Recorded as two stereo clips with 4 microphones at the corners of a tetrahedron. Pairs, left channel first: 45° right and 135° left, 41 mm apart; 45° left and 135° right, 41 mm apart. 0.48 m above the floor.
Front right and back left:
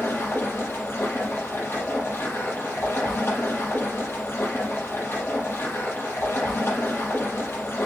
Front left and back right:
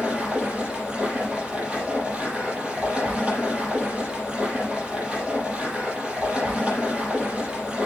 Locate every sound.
0.0 s running water: 70° right, 6 m